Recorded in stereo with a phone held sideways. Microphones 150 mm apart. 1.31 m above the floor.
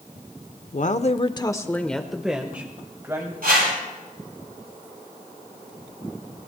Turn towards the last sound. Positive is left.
turn(degrees=-80)